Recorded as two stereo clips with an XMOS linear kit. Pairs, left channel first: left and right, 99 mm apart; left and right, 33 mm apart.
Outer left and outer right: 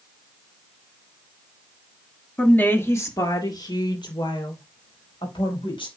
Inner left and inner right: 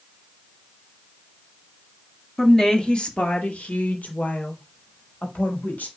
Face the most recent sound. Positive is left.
turn(degrees=65)  # may be behind; listen again after turning